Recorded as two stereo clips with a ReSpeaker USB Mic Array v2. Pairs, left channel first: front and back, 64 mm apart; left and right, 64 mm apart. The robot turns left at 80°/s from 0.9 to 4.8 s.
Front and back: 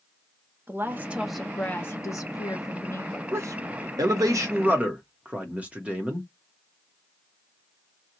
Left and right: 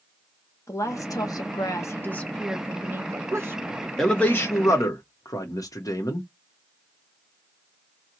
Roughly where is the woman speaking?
Behind left.